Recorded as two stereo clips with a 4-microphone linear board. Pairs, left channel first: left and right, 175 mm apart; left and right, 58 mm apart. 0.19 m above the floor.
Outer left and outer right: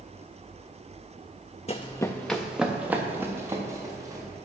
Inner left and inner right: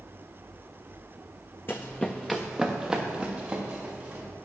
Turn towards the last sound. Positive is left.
turn(degrees=-20)  # may be behind; listen again after turning